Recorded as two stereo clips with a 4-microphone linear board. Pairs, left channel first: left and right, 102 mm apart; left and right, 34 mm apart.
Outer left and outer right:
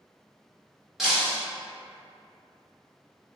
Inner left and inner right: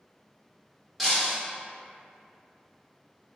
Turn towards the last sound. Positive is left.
turn(degrees=-5)  # may be behind; listen again after turning